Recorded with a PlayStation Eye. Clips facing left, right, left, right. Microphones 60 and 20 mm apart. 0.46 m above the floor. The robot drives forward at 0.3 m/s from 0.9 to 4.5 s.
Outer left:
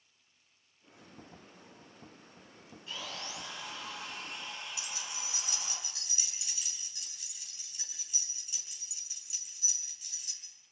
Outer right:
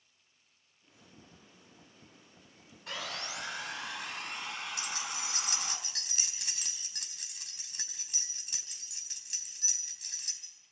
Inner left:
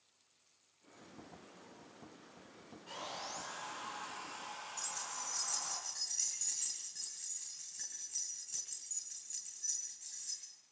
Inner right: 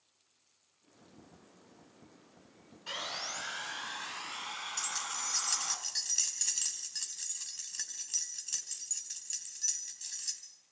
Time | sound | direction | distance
2.9 | sawing | 70° right (ahead or behind) | 3 m
4.8 | keys jangling | 55° right (ahead or behind) | 3.5 m